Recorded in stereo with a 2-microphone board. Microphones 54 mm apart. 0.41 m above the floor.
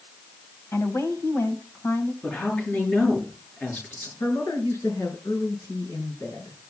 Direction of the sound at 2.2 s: 35° left (ahead or behind).